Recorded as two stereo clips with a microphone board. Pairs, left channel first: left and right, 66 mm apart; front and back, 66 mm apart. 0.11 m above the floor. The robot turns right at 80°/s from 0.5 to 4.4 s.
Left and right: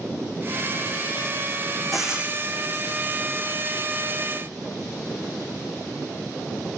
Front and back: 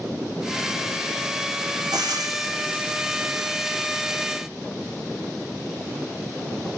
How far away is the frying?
About 1.2 m.